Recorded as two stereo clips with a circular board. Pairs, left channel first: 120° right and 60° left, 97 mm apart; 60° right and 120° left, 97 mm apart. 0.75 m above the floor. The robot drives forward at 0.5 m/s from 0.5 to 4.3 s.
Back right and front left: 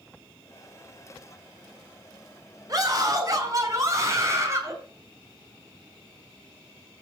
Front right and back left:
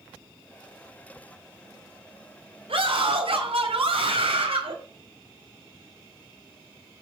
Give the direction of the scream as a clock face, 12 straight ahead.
8 o'clock.